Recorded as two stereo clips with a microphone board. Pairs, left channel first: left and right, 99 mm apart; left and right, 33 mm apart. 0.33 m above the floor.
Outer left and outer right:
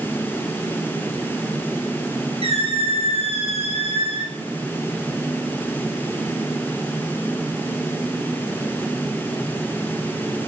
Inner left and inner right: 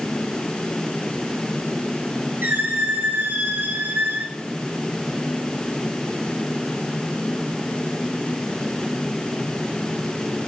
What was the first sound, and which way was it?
A squeak, 75° right (ahead or behind).